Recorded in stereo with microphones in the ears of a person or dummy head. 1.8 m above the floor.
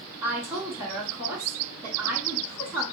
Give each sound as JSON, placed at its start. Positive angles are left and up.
{"t": 0.2, "sound": "a woman speaking", "side_deg": -10, "distance_m": 1.9}